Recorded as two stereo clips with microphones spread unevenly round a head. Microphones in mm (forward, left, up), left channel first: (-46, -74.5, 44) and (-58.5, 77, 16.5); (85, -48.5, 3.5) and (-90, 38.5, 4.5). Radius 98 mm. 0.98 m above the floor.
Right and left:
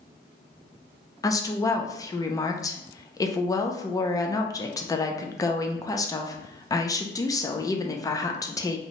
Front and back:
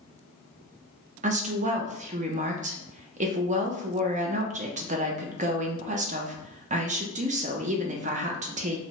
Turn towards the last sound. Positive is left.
turn(degrees=-160)